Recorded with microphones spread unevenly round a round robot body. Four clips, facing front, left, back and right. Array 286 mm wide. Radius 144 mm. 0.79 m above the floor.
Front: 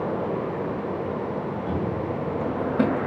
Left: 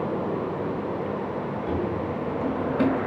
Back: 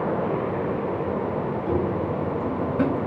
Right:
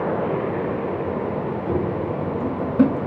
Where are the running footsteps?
105° right, 3 m; by 3.0 s 80° right, 3 m.